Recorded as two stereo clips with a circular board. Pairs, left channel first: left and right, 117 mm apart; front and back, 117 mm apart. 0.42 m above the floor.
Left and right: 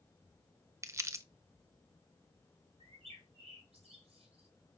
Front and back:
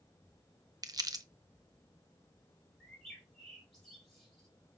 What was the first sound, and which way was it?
Crumpling, 140° right.